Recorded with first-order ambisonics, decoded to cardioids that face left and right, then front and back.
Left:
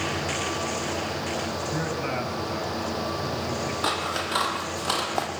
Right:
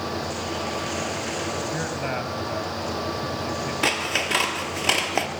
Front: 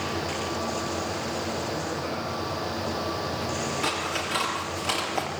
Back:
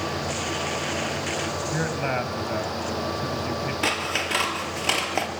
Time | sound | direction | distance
1.7 | a man speaking | 160° right | 3.5 m
3.8 | scissors | 115° right | 3.5 m